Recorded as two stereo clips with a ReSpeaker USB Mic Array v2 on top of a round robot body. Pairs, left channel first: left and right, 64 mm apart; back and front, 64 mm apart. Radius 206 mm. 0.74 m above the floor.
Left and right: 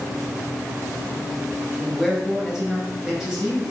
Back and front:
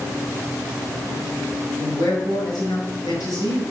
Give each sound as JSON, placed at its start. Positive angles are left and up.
{"t": 1.8, "sound": "a man speaking", "azimuth_deg": -170, "distance_m": 5.5}